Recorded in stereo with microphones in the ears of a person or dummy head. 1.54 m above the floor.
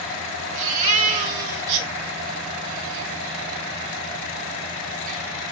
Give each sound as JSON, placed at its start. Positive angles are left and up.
{"t": 0.6, "sound": "a baby crying", "side_deg": -40, "distance_m": 3.0}